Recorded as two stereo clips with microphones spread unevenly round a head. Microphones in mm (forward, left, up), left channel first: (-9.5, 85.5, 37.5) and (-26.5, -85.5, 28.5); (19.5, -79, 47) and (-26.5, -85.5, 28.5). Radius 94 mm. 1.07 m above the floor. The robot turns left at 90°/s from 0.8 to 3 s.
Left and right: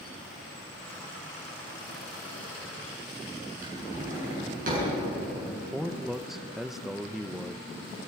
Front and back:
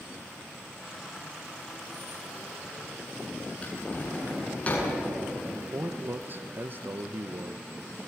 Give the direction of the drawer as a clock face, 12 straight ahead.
2 o'clock.